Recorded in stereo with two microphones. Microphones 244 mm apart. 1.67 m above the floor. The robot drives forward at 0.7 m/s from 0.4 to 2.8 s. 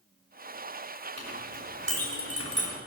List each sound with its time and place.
1.2 s a clink: 80° right, 3.5 m; by 2.7 s 70° right (ahead or behind), 3.5 m